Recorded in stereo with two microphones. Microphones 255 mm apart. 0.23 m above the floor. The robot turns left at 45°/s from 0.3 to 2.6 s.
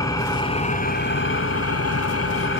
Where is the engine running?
165° left, 1.1 m; by 2.6 s 60° left, 1.1 m.